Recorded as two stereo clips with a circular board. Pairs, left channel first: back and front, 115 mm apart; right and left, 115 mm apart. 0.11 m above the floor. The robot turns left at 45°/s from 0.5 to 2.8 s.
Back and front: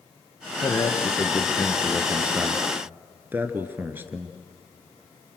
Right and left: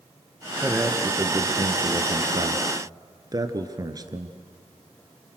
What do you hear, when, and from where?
0.6 s a man speaking: 160° left, 1.7 m; by 4.3 s 60° left, 1.7 m